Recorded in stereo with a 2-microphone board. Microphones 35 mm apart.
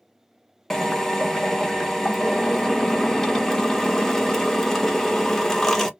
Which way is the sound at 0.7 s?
10° left (ahead or behind).